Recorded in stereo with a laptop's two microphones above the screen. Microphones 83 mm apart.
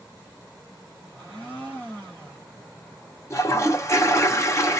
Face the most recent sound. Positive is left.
turn(degrees=35)  # may be behind; listen again after turning